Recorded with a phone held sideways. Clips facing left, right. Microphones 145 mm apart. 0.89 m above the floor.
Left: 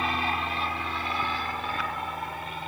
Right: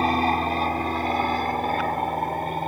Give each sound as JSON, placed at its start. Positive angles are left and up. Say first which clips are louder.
{"t": 0.0, "sound": "an aircraft", "louder": "right 8 dB", "side_deg": -40}